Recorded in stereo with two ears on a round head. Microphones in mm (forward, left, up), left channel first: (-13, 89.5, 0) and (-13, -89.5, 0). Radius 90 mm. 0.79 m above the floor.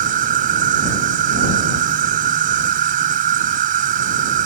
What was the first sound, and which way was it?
An insect, 40° right (ahead or behind).